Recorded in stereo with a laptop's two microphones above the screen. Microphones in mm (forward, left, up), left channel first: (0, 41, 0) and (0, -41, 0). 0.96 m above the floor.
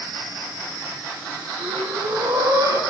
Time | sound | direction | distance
1.6 | breathing | 65° right (ahead or behind) | 2.5 m